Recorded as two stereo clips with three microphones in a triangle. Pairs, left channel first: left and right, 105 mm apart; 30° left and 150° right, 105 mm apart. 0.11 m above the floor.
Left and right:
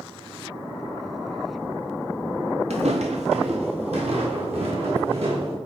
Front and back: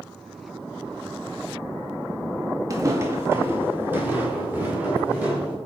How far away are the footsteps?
About 0.9 m.